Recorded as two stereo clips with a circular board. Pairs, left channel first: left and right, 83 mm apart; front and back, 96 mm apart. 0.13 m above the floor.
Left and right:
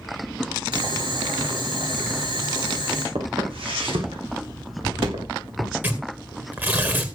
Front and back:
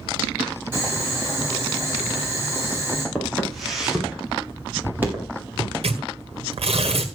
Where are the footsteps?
85° right, 6.5 m; by 5.7 s 115° right, 6.5 m.